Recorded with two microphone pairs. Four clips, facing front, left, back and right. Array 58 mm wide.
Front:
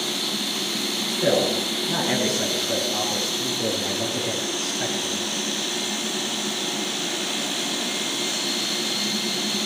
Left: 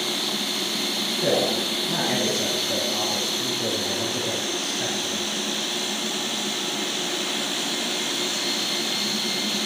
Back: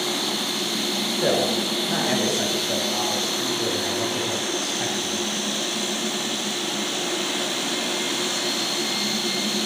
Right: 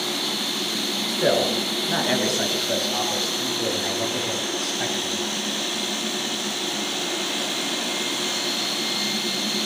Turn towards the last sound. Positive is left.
turn(degrees=-115)